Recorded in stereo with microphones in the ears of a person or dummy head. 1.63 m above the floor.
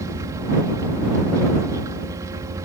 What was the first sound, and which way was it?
A helicopter, 15° right (ahead or behind).